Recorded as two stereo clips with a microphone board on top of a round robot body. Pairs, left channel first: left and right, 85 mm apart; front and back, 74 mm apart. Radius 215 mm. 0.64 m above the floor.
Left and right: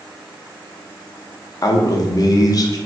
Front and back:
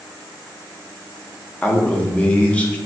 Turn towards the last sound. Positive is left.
turn(degrees=70)